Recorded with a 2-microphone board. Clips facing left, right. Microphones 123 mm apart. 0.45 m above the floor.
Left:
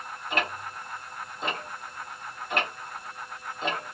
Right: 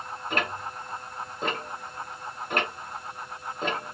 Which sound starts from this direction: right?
Ticking, at 0.3 s.